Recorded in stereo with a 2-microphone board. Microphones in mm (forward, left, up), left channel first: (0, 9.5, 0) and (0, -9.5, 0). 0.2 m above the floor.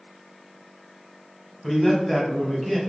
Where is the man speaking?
10° left (ahead or behind), 1.1 m; by 2.8 s 5° right (ahead or behind), 1.1 m.